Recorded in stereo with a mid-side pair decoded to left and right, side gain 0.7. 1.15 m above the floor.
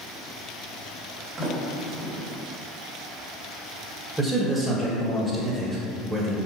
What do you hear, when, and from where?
1.4 s a sliding door: 35° right, 2 m
4.2 s a man speaking: straight ahead, 1.6 m